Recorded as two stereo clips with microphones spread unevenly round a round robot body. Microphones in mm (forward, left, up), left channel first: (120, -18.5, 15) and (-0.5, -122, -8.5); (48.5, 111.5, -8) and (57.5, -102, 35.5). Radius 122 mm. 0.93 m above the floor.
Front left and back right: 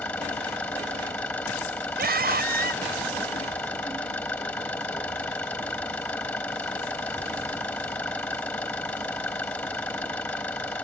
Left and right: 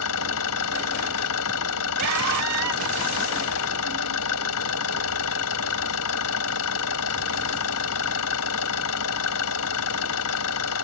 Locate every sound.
0.0 s an engine running: 125° left
2.0 s a scream: 120° right